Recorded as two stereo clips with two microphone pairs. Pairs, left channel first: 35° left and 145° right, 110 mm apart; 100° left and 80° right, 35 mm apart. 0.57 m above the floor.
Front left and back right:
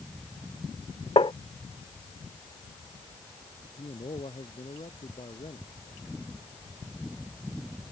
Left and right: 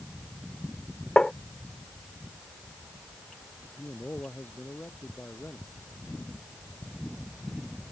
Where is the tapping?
40° left.